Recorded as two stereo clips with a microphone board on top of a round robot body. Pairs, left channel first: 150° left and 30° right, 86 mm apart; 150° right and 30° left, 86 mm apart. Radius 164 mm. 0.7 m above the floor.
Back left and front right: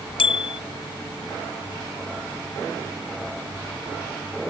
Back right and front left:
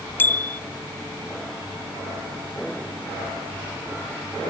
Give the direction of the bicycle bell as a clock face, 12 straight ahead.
7 o'clock.